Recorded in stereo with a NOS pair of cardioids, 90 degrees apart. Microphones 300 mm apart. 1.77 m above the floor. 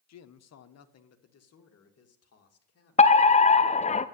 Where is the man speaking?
65° left, 1.1 m; by 3.2 s 50° left, 3.5 m.